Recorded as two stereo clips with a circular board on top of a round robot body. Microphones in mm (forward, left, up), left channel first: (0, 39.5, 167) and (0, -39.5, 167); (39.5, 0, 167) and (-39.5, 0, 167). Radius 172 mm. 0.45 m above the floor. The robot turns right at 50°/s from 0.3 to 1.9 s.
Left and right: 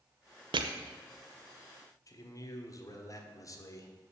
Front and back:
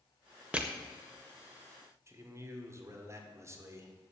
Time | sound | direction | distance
0.5 | crushing | 105° right | 0.6 m
2.1 | a man speaking | 130° left | 1.7 m